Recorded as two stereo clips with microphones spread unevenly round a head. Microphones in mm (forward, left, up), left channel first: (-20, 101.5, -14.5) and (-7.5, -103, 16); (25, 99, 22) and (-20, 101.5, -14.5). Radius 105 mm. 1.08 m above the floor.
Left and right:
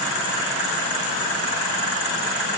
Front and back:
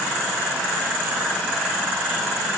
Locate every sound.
Only background noise.